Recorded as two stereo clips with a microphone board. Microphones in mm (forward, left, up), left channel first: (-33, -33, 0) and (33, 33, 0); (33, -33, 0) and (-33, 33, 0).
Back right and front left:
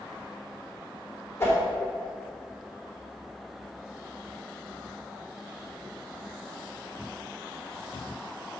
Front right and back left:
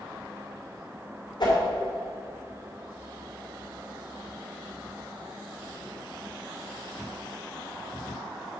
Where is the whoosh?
75° right, 3 m.